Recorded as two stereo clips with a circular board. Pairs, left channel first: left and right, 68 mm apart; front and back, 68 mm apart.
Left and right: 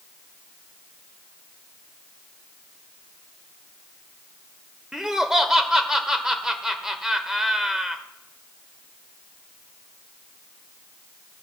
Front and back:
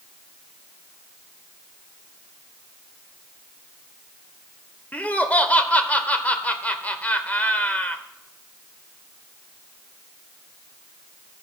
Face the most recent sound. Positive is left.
turn(degrees=-20)